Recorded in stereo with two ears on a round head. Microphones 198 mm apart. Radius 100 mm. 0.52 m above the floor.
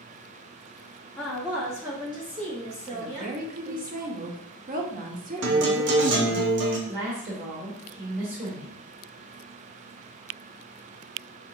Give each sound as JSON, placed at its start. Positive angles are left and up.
{"t": 1.2, "sound": "a woman speaking", "side_deg": 5, "distance_m": 1.0}
{"t": 2.9, "sound": "a woman speaking", "side_deg": -40, "distance_m": 1.0}
{"t": 5.4, "sound": "a guitar", "side_deg": -55, "distance_m": 0.9}
{"t": 6.9, "sound": "a woman speaking", "side_deg": -45, "distance_m": 1.5}